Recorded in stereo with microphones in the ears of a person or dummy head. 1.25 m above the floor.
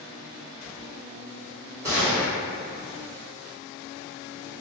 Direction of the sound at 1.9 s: 15° right (ahead or behind).